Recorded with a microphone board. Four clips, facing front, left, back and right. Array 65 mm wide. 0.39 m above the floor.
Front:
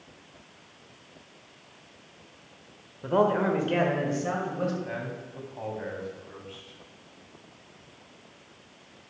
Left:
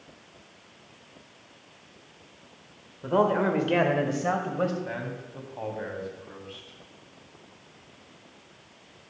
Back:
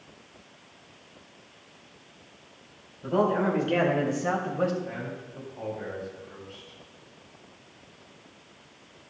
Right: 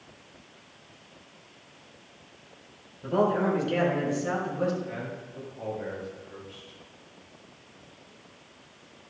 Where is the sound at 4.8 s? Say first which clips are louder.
Left 2 dB, front 1 dB; 70° left, 3 m.